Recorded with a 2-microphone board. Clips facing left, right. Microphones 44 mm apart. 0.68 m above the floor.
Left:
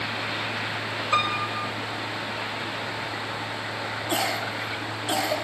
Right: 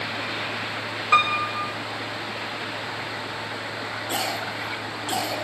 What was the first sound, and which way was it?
A piano, 65° right (ahead or behind).